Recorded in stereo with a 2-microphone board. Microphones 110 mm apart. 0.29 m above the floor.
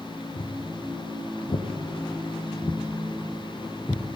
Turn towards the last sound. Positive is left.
turn(degrees=10)  # may be behind; listen again after turning